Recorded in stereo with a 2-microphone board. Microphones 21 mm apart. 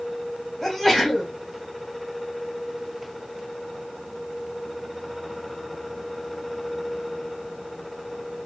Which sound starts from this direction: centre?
A sneeze, at 0.6 s.